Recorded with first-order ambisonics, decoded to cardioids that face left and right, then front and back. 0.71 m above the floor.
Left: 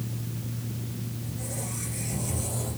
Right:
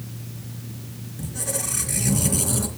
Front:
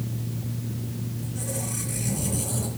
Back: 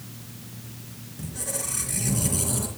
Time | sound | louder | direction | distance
1.2 | a squeak | right 10 dB, back 2 dB | 110° right | 3 m